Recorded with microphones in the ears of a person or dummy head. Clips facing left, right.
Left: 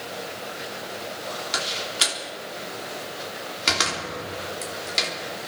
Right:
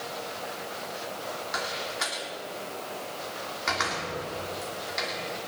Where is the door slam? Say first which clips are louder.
Left 2 dB; 50° left (ahead or behind), 2.5 m.